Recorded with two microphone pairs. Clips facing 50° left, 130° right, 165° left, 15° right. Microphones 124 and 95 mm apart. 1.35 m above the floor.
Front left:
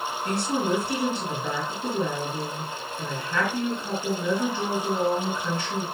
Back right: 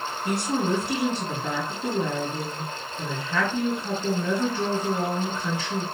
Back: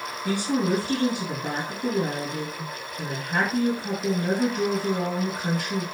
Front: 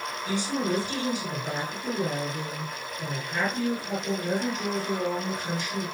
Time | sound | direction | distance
0.2 | a woman speaking | 155° left | 7.5 m